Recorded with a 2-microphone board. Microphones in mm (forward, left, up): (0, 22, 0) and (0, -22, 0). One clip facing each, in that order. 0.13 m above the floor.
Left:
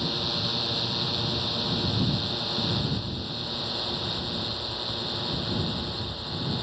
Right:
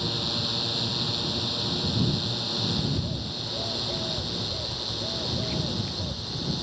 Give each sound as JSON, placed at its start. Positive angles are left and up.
{"t": 0.0, "sound": "a drone", "side_deg": 5}
{"t": 2.8, "sound": "a bird", "side_deg": -55}